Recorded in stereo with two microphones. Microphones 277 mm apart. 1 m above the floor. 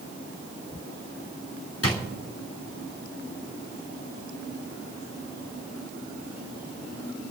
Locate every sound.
1.8 s a drawer: 55° left (ahead or behind), 3 m